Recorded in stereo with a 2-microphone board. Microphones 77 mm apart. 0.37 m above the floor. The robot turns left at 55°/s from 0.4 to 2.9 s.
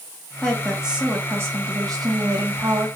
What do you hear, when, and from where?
0.4 s a woman speaking: 15° left, 2.5 m; by 2.9 s 120° right, 2.5 m